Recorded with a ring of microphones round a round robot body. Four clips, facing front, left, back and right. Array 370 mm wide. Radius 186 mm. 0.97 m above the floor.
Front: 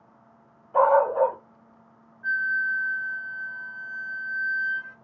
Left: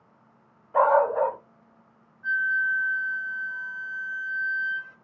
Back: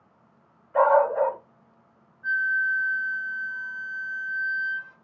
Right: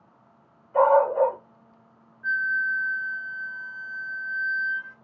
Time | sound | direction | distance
0.7 | a dog barking | 35° left | 2 m
2.2 | a flute | 10° left | 2.5 m